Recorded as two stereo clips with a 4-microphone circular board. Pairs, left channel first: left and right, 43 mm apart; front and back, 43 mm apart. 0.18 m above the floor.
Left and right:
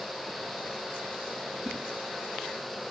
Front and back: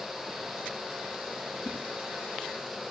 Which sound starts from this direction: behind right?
A whoosh, at 1.6 s.